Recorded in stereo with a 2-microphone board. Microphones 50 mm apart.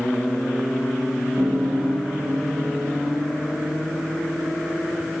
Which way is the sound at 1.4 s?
60° right (ahead or behind).